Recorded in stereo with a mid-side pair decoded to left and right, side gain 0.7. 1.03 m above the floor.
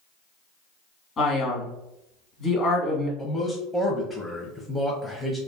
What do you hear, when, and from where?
1.2 s a man speaking: 40° left, 1.4 m
3.2 s a man speaking: 10° left, 0.6 m